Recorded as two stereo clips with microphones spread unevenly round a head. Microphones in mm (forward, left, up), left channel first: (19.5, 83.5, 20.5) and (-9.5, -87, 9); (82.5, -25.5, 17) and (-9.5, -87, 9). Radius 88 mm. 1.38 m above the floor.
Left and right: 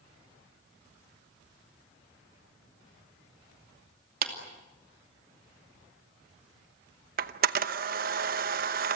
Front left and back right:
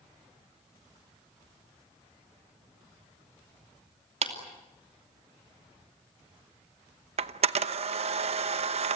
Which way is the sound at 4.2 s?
135° right.